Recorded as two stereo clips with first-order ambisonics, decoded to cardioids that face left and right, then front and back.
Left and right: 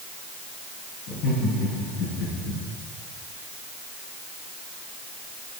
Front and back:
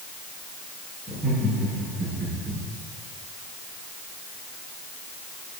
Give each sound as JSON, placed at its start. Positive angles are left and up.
{"t": 1.1, "sound": "laughter", "azimuth_deg": 80, "distance_m": 5.0}